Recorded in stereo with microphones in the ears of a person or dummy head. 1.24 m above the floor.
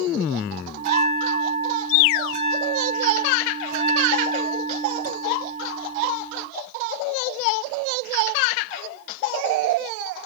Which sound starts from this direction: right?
A bell, at 0.8 s.